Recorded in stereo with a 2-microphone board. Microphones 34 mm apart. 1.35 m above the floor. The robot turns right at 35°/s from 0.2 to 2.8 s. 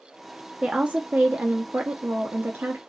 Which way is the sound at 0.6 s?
145° right.